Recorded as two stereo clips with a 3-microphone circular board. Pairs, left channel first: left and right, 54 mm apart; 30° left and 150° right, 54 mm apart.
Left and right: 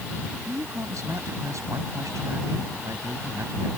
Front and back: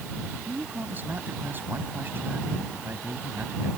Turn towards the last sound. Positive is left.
turn(degrees=-100)